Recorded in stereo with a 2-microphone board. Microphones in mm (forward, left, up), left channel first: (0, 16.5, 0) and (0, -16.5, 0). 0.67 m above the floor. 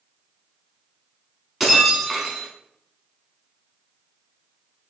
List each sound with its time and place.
1.6 s breaking glass: 10° right (ahead or behind), 0.8 m